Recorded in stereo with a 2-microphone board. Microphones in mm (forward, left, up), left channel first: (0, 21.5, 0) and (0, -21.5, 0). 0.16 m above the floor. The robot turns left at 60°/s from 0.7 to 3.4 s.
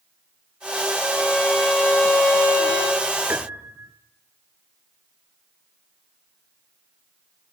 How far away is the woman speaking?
No woman speaking in this recording.